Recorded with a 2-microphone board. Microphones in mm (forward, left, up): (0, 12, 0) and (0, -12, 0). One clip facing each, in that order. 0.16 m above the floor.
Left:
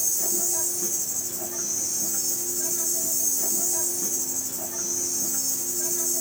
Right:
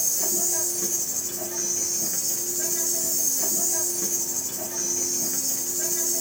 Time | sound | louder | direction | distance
0.0 | an insect | right 1 dB | 45° right (ahead or behind) | 2 m